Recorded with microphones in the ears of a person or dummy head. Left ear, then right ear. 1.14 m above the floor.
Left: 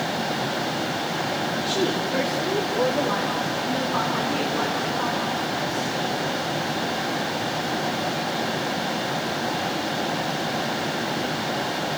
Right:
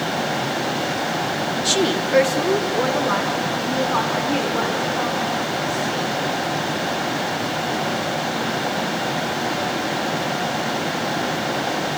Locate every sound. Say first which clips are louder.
1.6 s a woman speaking: right 6 dB; 45° right (ahead or behind), 0.9 m; by 6.1 s 55° right (ahead or behind), 5 m